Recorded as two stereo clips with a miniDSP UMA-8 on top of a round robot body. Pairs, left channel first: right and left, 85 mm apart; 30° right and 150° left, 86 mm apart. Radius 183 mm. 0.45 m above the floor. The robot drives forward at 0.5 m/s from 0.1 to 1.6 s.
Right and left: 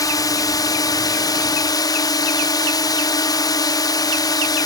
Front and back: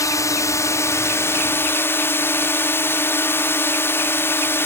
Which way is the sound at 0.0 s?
65° right.